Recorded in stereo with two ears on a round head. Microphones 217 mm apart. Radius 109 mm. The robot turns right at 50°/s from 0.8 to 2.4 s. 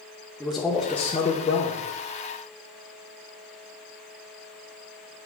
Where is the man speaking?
Straight ahead, 1.0 m; by 1.8 s 50° left, 1.0 m.